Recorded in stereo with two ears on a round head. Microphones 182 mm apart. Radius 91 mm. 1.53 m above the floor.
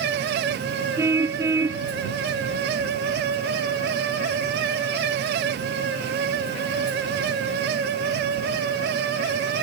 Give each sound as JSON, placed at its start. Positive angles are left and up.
{"t": 1.0, "sound": "a car horn", "side_deg": -15}